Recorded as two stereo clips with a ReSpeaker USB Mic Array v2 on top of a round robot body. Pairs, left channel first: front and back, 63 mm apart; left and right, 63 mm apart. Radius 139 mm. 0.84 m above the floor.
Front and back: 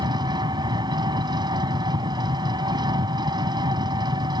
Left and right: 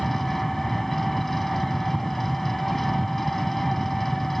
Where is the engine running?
175° left.